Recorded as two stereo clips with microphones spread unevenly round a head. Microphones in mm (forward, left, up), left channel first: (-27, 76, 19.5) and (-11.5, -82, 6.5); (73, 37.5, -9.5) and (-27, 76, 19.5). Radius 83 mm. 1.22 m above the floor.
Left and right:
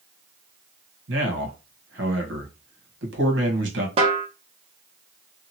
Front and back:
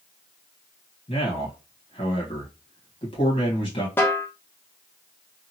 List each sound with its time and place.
1.1 s a man speaking: 75° right, 1.2 m
4.0 s a snare drum: 110° right, 0.8 m